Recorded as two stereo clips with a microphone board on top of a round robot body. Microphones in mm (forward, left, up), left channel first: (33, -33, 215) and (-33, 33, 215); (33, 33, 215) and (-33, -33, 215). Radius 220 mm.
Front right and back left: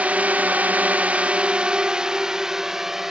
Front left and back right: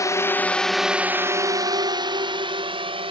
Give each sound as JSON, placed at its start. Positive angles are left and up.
{"t": 0.0, "sound": "a drone", "azimuth_deg": 70}